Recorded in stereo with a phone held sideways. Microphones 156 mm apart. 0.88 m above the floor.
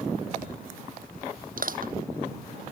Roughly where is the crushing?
Right.